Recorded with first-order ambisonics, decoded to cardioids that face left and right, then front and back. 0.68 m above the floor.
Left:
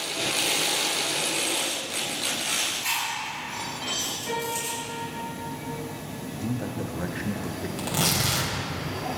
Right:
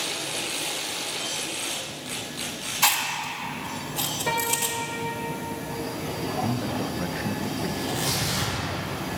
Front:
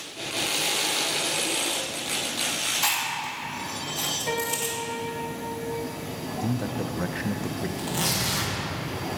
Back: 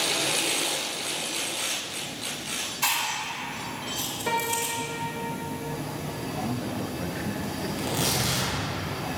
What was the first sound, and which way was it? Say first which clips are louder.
Chewing: right 4 dB, even; 100° right.